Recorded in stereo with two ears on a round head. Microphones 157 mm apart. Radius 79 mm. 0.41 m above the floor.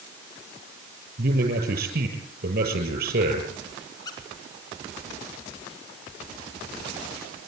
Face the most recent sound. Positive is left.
turn(degrees=20)  # may be behind; listen again after turning